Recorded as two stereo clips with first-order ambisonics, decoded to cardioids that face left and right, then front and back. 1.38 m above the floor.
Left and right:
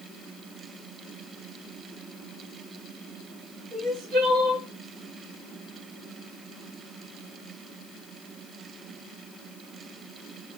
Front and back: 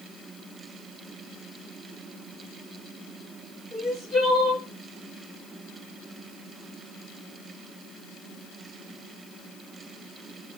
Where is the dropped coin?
No dropped coin in this recording.